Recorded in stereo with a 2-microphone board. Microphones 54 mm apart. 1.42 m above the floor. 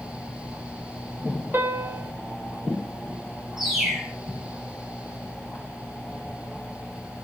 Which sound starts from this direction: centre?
A bird, at 3.6 s.